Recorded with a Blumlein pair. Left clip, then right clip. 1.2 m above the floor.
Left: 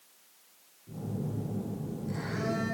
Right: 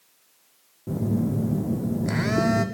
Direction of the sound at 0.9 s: 50° right.